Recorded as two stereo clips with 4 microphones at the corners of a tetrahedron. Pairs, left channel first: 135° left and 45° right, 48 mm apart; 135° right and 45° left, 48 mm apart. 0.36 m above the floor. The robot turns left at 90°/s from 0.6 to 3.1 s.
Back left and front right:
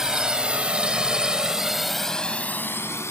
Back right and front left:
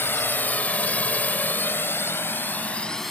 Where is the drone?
120° right; by 3.1 s 140° left.